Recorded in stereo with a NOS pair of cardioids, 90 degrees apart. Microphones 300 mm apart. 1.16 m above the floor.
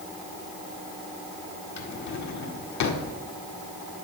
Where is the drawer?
70° left, 1.7 m.